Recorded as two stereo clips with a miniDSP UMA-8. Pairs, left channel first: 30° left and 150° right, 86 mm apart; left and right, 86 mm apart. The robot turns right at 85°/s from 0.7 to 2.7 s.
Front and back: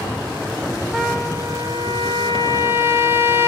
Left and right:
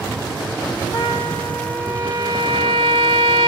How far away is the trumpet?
About 0.8 m.